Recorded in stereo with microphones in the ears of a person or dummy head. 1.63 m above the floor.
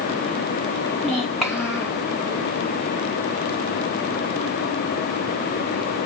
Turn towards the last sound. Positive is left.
turn(degrees=0)  # may be behind; listen again after turning